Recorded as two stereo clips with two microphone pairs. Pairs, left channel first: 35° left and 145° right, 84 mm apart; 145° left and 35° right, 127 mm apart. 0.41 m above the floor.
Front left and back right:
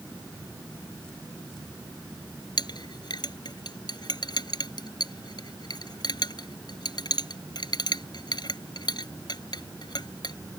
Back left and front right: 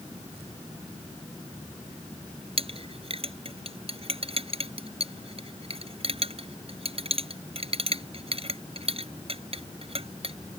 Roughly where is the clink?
Ahead.